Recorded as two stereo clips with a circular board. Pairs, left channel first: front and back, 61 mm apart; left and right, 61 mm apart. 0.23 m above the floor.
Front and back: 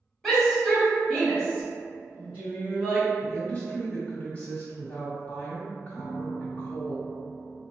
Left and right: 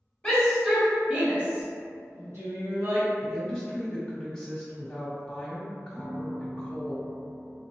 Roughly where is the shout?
Left.